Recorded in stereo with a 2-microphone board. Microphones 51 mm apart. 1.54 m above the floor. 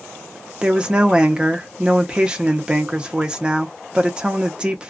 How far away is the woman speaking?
About 0.6 m.